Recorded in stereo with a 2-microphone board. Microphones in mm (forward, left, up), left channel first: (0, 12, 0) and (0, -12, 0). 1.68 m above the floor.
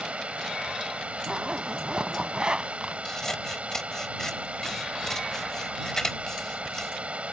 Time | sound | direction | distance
0.0 | running water | 75° right (ahead or behind) | ?
1.3 | a zipper | 40° right (ahead or behind) | ?
3.0 | scissors | 20° left (ahead or behind) | ?